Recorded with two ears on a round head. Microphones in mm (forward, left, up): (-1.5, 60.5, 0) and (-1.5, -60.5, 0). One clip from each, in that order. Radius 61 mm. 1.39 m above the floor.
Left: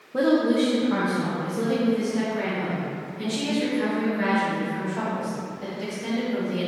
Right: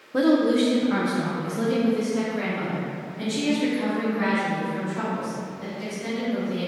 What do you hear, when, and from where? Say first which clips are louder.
0.1 s a woman speaking: right 1 dB; 65° right (ahead or behind), 0.7 m; by 6.7 s 5° left (ahead or behind), 5 m